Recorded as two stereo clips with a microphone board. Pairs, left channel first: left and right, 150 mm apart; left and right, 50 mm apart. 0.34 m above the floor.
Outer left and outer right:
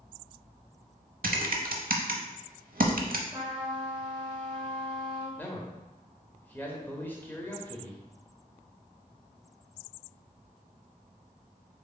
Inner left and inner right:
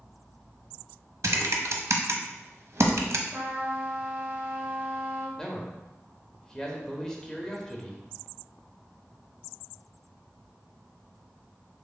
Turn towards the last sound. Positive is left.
turn(degrees=15)  # may be behind; listen again after turning